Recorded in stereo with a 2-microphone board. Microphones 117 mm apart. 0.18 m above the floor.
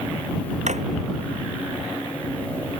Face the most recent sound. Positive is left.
turn(degrees=-80)